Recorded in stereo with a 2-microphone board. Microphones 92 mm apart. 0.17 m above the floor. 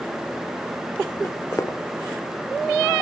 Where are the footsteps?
35° left (ahead or behind), 1.7 m.